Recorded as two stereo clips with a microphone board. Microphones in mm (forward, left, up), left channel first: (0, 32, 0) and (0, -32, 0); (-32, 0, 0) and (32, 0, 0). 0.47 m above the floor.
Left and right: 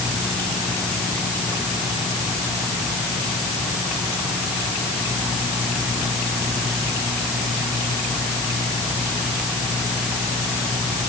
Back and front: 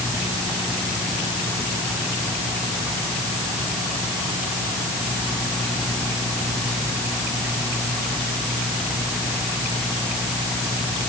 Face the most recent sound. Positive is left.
No sound to turn to.